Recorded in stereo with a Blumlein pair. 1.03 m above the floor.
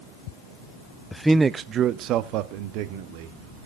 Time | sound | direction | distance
1.1 | a man speaking | 5° left | 0.5 m